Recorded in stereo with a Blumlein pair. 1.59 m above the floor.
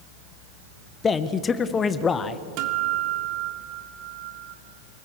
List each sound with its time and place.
1.0 s a man speaking: 20° left, 1.3 m
2.6 s a guitar: 45° right, 2.5 m